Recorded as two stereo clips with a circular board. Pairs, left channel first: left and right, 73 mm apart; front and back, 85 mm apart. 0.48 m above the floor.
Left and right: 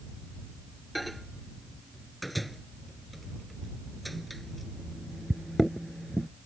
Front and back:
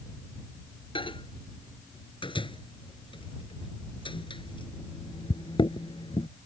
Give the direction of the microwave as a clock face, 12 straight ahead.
12 o'clock.